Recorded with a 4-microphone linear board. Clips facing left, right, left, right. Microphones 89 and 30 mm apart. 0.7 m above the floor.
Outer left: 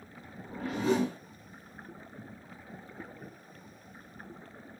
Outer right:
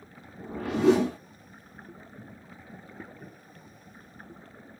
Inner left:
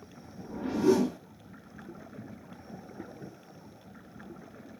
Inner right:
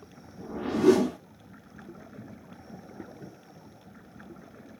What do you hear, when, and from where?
0.4 s a whoosh: 70° right (ahead or behind), 0.8 m